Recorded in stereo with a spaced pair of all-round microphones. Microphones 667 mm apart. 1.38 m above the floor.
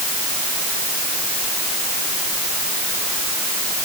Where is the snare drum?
No snare drum in this recording.